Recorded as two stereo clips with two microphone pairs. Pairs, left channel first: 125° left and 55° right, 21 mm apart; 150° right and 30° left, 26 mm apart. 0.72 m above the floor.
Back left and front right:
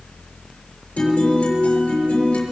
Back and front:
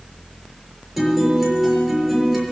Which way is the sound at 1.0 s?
110° left.